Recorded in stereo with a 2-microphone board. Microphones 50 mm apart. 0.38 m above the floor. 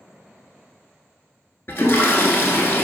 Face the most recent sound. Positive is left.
turn(degrees=50)  # may be behind; listen again after turning